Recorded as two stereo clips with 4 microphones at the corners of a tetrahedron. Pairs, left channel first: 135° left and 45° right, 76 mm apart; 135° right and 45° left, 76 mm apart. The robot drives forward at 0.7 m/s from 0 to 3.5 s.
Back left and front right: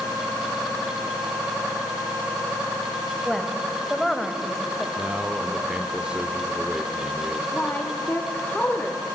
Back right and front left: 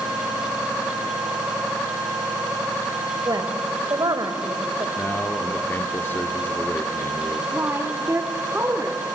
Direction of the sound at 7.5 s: 80° left.